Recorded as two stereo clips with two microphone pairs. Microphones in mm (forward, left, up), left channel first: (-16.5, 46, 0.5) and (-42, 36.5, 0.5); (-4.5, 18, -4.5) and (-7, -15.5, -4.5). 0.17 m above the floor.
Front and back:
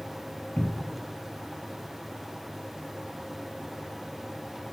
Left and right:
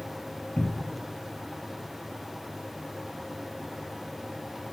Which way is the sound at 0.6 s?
30° left.